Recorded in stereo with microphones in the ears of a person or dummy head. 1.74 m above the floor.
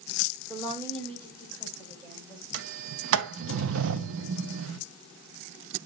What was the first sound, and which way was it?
A woman speaking, 30° right (ahead or behind).